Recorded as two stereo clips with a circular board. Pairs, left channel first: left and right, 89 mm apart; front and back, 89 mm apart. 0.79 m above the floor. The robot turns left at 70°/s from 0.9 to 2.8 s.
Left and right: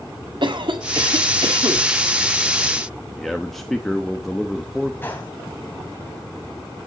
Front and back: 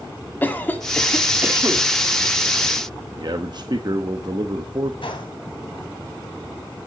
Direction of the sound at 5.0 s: 20° left.